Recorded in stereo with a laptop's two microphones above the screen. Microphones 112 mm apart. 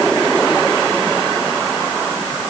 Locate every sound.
Only background noise.